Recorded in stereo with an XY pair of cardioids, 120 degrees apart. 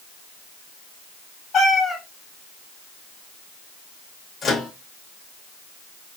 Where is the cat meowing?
50° left, 1.4 m.